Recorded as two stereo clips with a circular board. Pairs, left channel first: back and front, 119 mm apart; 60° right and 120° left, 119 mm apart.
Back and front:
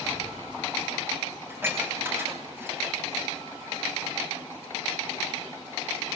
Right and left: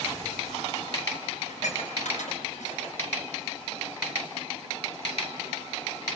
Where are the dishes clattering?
70° right, 5 m.